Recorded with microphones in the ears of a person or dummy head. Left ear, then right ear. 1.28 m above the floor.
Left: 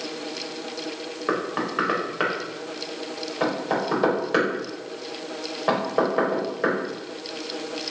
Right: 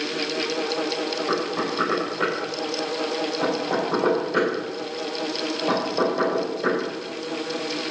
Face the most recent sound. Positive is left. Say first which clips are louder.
# right 1 dB
turn(degrees=55)  # may be behind; listen again after turning